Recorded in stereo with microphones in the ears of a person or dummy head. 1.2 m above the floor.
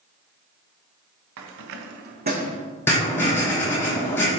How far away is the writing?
About 1.3 m.